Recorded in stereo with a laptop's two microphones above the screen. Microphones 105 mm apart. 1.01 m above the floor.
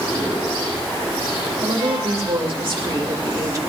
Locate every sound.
1.6 s a woman speaking: 65° right (ahead or behind), 2 m; by 3.6 s 35° right (ahead or behind), 1.3 m